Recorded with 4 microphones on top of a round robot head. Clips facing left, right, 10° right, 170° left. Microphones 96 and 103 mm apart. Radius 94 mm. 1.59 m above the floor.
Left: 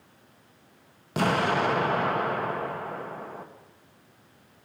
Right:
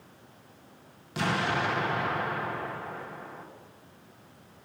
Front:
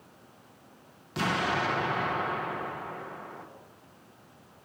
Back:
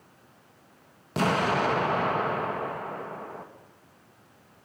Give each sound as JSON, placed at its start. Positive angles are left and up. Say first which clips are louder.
{"t": 1.2, "sound": "an explosion", "louder": "left 4 dB, back 4 dB", "azimuth_deg": 130, "distance_m": 1.7}